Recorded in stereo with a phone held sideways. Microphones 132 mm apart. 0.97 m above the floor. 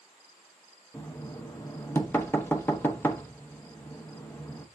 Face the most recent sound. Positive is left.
turn(degrees=15)  # may be behind; listen again after turning